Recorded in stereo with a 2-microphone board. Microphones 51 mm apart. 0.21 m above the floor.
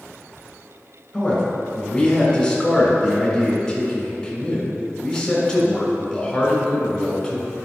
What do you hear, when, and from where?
1.1 s a man speaking: 10° left (ahead or behind), 2.5 m